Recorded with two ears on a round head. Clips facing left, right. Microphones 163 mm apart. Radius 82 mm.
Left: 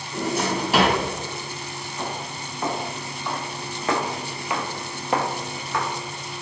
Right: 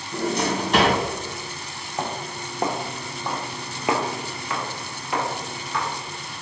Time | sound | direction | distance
0.1 | a drawer | 5° left (ahead or behind) | 1.5 m
2.0 | footsteps | 45° right (ahead or behind) | 1.4 m